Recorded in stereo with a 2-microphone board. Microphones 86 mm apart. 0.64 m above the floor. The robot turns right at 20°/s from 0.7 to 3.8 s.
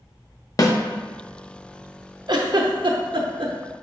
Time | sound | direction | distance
0.6 | a snare drum | 45° left (ahead or behind) | 0.5 m
2.3 | a giggle | 55° right (ahead or behind) | 0.6 m